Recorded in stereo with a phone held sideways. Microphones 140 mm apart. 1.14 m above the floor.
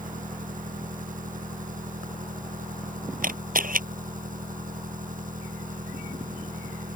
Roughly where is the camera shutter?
Right.